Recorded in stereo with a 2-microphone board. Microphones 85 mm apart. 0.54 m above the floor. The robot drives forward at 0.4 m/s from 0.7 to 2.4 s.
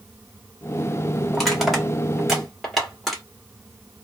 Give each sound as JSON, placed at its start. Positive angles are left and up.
{"t": 1.3, "sound": "crushing", "side_deg": 0, "distance_m": 1.3}